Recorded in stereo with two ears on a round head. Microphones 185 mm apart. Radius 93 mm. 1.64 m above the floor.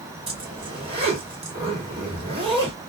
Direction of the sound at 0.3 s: 25° right (ahead or behind).